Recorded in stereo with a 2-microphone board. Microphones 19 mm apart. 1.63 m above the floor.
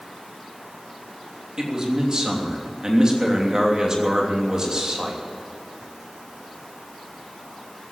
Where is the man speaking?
35° right (ahead or behind), 3 m.